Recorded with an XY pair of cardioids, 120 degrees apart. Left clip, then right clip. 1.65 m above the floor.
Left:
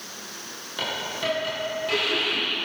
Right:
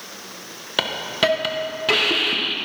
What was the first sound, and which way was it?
A hiss, 65° right.